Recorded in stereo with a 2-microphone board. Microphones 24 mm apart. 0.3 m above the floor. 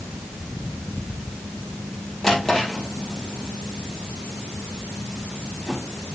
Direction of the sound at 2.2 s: 10° left (ahead or behind).